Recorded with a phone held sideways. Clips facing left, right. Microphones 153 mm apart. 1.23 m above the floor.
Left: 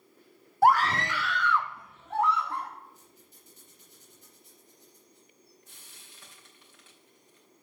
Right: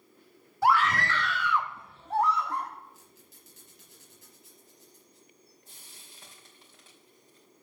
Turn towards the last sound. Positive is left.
turn(degrees=-35)  # may be behind; listen again after turning